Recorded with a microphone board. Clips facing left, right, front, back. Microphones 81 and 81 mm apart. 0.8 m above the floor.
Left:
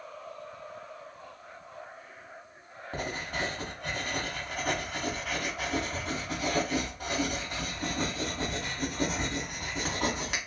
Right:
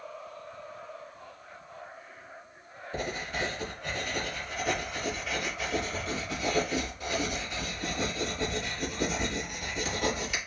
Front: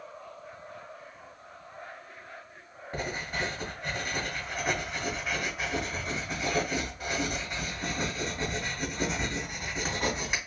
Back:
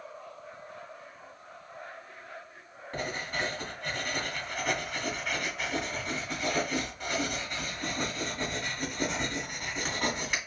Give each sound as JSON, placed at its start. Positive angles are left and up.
{"t": 2.9, "sound": "writing", "azimuth_deg": 80, "distance_m": 2.5}